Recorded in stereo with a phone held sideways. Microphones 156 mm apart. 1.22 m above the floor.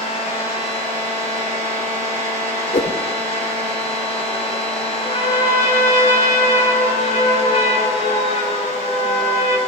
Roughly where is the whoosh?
Left.